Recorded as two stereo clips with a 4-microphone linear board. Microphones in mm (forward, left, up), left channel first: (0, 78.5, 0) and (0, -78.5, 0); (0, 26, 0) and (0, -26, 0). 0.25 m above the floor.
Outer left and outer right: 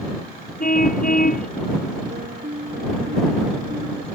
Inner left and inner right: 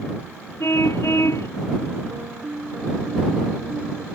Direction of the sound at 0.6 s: 60° left (ahead or behind).